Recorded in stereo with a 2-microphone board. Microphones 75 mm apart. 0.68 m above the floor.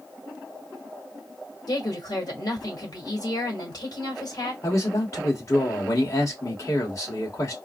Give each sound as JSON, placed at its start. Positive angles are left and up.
{"t": 1.7, "sound": "a woman speaking", "side_deg": 55, "distance_m": 2.5}
{"t": 4.6, "sound": "a man speaking", "side_deg": 45, "distance_m": 2.0}